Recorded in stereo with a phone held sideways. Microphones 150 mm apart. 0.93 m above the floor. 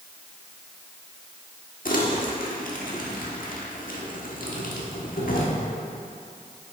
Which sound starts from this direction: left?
Crumpling, at 1.9 s.